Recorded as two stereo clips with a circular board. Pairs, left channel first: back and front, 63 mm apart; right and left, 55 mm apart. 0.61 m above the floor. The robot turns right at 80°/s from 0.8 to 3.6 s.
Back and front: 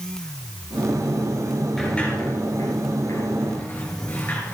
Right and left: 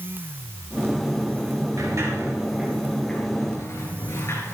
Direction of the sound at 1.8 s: 90° left.